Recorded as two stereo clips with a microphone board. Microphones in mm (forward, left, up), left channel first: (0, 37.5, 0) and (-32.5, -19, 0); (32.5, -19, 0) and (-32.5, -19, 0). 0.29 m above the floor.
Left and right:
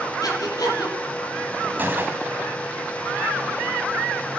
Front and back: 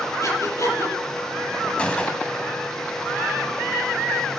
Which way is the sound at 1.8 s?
70° right.